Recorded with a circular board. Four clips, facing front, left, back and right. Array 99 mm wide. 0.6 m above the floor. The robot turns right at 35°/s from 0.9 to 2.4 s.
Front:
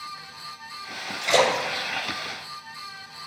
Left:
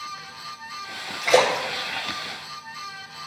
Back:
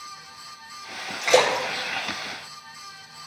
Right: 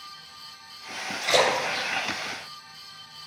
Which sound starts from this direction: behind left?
A splash, at 1.2 s.